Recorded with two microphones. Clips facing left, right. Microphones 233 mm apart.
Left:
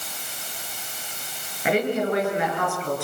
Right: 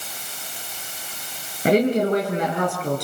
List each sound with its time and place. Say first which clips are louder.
1.6 s a woman speaking: right 5 dB; 40° right (ahead or behind), 5.5 m